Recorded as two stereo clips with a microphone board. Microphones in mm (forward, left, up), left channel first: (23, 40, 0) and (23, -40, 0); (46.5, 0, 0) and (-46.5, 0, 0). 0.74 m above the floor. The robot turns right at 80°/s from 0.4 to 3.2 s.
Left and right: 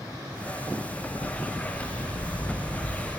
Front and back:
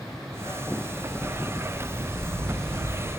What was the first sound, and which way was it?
A dog barking, 20° left.